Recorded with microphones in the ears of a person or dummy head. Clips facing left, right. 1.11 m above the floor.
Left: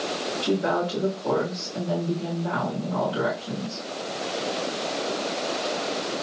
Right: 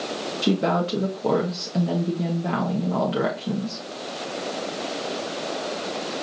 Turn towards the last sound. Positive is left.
turn(degrees=-85)